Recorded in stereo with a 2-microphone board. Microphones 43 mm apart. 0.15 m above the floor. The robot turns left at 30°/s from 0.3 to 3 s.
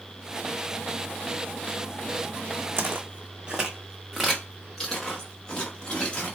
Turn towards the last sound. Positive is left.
turn(degrees=30)  # may be behind; listen again after turning